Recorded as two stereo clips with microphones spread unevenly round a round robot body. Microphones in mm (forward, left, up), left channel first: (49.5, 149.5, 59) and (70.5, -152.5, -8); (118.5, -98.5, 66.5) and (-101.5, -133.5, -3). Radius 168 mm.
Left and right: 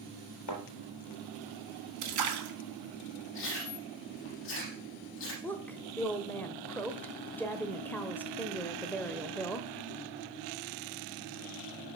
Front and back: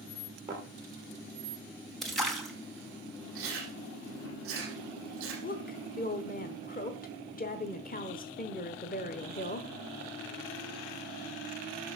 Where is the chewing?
150° left, 6 m.